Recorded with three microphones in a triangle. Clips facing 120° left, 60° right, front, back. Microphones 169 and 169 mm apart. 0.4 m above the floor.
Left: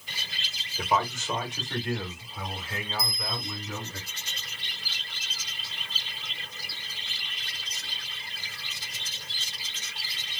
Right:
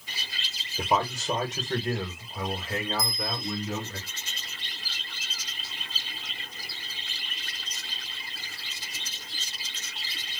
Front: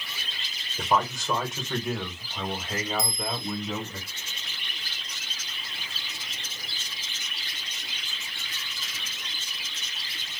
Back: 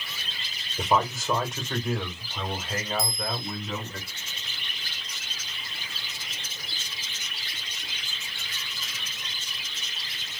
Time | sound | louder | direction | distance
0.8 | a man speaking | right 1 dB, back 1 dB | 100° right | 1.1 m
3.0 | a bell | right 3 dB, even | 65° left | 0.7 m